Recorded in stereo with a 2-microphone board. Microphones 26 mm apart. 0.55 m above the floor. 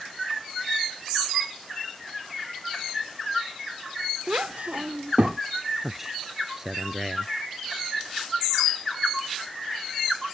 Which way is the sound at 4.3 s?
60° right (ahead or behind).